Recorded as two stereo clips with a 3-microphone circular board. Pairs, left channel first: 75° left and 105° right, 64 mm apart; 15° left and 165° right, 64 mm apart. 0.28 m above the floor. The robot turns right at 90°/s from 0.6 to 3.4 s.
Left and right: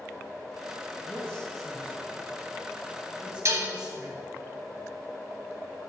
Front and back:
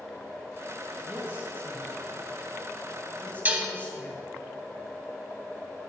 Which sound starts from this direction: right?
Dishes clattering, at 3.5 s.